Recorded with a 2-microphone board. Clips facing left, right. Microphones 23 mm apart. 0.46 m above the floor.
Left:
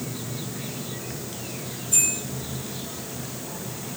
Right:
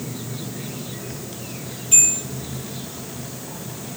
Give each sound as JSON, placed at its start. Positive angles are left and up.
{"t": 1.9, "sound": "a bell", "side_deg": -80, "distance_m": 8.5}